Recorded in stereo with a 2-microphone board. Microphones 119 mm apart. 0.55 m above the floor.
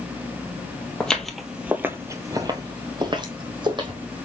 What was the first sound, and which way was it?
Footsteps, 10° left (ahead or behind).